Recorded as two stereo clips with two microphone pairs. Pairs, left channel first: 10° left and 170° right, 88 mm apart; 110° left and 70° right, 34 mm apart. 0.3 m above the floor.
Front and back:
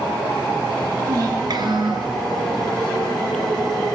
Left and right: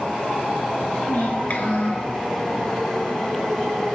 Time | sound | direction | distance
1.1 | a child speaking | 145° left | 2.5 m